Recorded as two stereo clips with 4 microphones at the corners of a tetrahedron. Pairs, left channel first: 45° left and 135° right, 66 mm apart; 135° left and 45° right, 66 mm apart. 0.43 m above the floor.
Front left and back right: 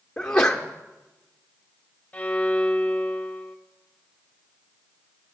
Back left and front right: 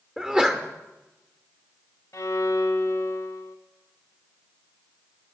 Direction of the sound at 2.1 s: 115° left.